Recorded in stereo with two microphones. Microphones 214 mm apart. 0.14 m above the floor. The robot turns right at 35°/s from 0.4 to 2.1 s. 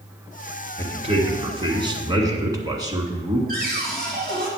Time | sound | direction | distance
0.8 | a man speaking | 25° right (ahead or behind) | 1.6 m
3.5 | a cupboard door | 45° right (ahead or behind) | 3.5 m